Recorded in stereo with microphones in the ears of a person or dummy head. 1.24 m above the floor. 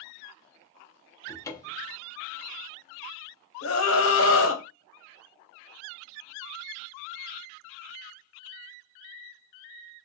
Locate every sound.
1.3 s a cupboard door: 15° left (ahead or behind), 0.6 m
3.6 s a scream: 60° left (ahead or behind), 0.9 m